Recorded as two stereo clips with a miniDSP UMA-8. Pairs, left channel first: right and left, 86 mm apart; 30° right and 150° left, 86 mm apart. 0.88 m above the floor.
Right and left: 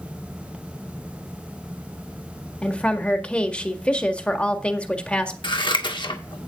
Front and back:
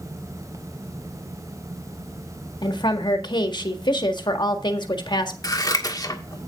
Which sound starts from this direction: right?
Scissors, at 5.4 s.